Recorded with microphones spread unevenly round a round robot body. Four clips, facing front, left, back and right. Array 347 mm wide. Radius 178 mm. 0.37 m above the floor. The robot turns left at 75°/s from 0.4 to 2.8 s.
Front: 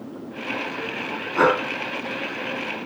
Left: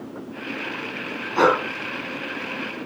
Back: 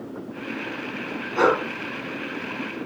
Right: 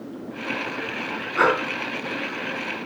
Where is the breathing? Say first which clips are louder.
Left 2 dB, front 1 dB; 35° left, 5 m; by 1.6 s 20° left, 5 m.